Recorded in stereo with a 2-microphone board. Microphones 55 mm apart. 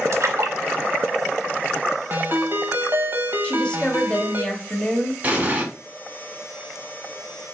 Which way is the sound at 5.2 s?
25° right (ahead or behind).